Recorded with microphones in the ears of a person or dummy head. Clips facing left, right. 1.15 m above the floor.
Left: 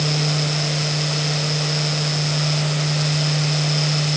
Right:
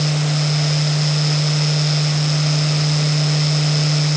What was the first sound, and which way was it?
Only background noise.